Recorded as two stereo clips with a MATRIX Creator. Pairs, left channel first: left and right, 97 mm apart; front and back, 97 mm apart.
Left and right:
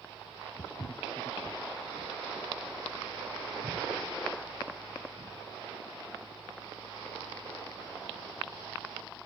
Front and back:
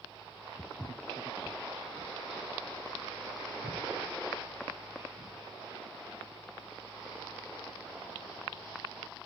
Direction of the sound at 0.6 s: 55° left.